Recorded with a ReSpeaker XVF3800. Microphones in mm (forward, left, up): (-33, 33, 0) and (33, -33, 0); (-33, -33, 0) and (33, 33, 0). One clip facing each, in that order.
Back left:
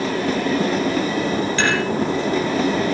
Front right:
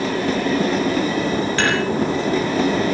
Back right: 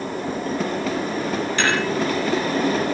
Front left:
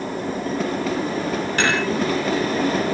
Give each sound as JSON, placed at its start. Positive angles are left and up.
{"t": 1.6, "sound": "dishes clattering", "azimuth_deg": 0, "distance_m": 9.5}